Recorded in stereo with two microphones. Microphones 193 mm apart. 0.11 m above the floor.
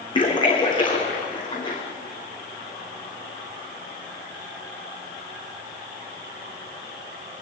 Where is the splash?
25° left (ahead or behind), 4.5 m.